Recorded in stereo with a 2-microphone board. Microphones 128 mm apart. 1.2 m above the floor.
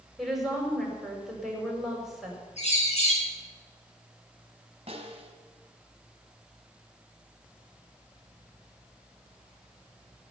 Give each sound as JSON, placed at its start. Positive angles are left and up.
{"t": 0.2, "sound": "a woman speaking", "side_deg": 0, "distance_m": 5.5}
{"t": 2.6, "sound": "a bird", "side_deg": 60, "distance_m": 6.0}
{"t": 4.9, "sound": "a snare drum", "side_deg": -45, "distance_m": 2.5}